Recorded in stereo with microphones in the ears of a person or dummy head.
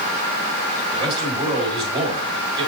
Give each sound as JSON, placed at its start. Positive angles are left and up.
{"t": 0.9, "sound": "a man speaking", "side_deg": -30, "distance_m": 5.0}